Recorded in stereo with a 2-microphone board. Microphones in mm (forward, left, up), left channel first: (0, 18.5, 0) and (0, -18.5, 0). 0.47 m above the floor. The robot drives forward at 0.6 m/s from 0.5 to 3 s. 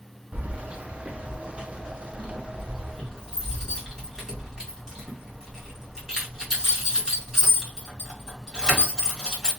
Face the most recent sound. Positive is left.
turn(degrees=-15)  # may be behind; listen again after turning